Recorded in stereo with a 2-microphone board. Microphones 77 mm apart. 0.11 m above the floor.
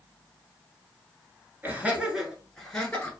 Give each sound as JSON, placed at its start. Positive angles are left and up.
{"t": 1.6, "sound": "laughter", "side_deg": -25, "distance_m": 1.5}